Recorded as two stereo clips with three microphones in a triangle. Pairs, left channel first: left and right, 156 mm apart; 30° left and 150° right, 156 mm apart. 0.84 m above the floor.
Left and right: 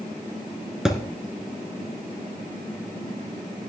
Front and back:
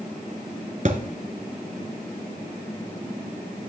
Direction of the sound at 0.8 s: 175° right.